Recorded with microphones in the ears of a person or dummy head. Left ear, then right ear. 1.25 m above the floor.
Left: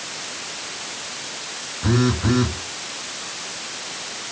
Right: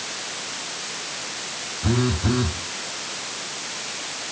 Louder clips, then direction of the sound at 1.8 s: Left 3 dB; 80° left.